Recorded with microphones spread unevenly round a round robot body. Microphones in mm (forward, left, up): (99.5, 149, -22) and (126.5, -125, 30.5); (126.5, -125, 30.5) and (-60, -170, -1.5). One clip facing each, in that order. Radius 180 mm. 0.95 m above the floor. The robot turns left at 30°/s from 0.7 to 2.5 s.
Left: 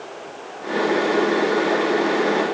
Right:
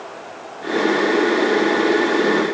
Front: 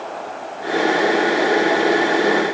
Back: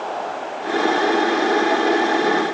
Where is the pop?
I don't hear a pop.